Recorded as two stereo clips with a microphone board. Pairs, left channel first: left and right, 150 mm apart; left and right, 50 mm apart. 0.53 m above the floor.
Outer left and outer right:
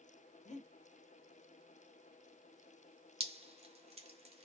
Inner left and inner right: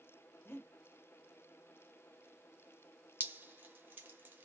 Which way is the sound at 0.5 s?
50° left (ahead or behind).